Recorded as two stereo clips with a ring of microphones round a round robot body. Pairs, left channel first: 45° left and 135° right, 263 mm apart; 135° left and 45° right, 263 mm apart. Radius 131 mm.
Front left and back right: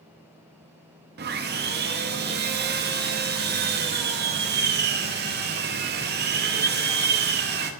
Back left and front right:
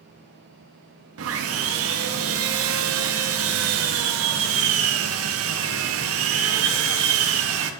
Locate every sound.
1.2 s sawing: 80° right, 0.5 m